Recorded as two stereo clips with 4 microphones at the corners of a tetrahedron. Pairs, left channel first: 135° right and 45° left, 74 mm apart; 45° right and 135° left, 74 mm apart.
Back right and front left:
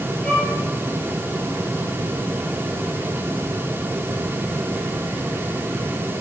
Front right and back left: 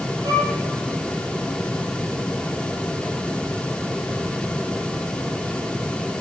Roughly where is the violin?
Behind left.